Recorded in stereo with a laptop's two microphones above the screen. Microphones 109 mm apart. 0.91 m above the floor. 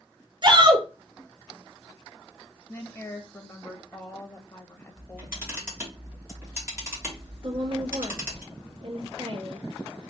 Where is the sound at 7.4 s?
50° right (ahead or behind), 1.1 m.